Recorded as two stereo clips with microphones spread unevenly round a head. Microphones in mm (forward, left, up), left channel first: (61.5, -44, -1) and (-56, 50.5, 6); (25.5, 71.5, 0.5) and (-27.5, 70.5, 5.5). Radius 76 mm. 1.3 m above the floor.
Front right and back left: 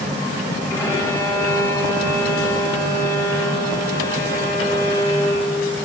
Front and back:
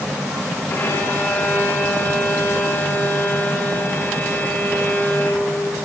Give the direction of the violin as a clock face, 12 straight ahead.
11 o'clock.